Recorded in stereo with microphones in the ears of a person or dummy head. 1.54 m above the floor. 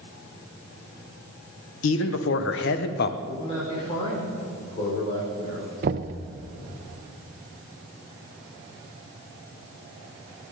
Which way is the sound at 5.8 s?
40° right (ahead or behind).